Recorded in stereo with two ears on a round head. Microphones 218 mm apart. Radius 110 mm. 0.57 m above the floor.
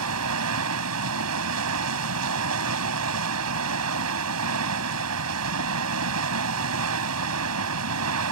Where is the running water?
75° right (ahead or behind).